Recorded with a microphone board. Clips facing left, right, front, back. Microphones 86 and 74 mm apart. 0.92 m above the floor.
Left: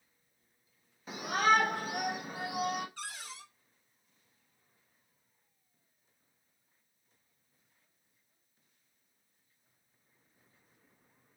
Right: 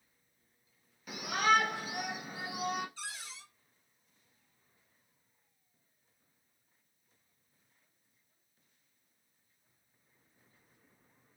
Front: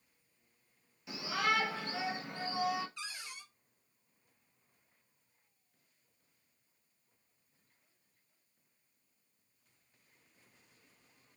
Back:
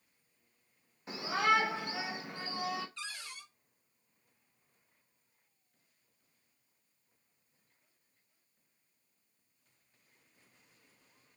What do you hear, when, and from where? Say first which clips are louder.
1.1 s a shout: left 1 dB, back 4 dB; 145° left, 0.9 m; by 2.9 s 80° left, 1.3 m
3.0 s a cupboard door: left 1 dB, back 1 dB; 70° left, 0.7 m